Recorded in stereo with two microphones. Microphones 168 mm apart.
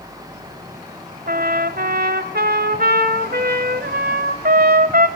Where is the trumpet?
65° right (ahead or behind), 1.6 m.